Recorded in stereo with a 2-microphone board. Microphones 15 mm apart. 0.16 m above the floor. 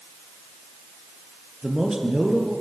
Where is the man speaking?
45° right (ahead or behind), 4 m.